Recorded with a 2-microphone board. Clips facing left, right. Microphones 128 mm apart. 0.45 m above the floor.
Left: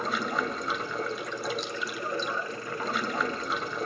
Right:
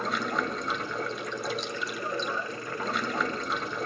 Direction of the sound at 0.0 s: Centre (ahead or behind).